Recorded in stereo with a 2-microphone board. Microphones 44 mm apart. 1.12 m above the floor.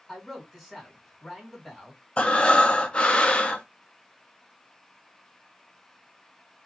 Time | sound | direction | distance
0.1 | a man speaking | 10° left (ahead or behind) | 2.5 m
2.2 | breathing | 25° left (ahead or behind) | 0.6 m